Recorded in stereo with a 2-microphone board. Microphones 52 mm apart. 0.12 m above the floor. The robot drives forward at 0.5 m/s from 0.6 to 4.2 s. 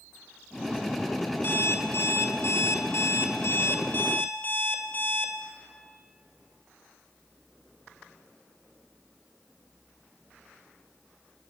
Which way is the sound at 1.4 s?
45° left (ahead or behind).